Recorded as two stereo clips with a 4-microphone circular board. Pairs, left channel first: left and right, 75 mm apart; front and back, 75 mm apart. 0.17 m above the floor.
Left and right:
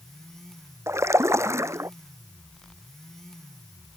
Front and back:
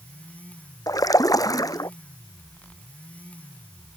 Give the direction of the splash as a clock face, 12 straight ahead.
1 o'clock.